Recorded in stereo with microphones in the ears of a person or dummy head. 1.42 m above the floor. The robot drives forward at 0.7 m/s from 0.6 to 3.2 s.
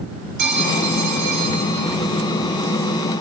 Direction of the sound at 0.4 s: 60° right (ahead or behind).